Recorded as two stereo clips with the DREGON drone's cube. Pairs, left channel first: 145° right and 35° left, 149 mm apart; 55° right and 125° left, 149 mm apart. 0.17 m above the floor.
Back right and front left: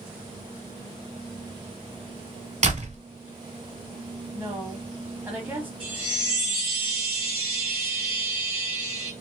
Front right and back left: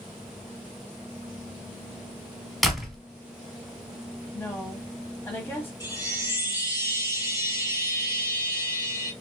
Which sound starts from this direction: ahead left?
A door slam, at 2.6 s.